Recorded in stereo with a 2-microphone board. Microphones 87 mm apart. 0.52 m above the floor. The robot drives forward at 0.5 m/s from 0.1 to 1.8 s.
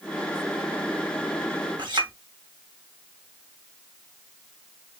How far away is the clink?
About 1.8 m.